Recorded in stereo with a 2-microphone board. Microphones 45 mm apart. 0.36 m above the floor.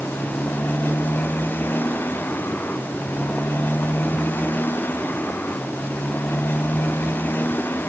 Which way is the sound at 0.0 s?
50° left (ahead or behind).